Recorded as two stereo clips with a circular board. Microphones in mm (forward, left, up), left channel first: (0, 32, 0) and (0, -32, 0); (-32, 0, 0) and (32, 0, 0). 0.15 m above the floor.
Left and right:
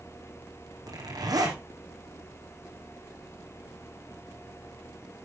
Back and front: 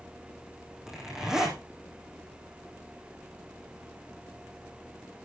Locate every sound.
0.8 s a zipper: 85° right, 4 m